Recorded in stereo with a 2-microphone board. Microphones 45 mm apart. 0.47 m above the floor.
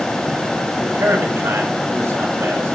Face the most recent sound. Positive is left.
turn(degrees=-75)  # may be behind; listen again after turning